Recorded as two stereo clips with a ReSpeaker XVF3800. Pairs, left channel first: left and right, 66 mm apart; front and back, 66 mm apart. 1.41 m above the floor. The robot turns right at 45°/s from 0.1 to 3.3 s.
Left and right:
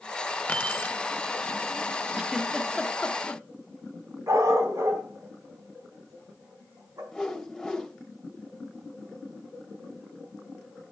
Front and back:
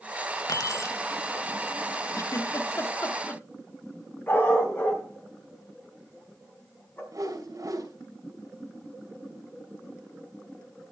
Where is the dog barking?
55° right, 4 m.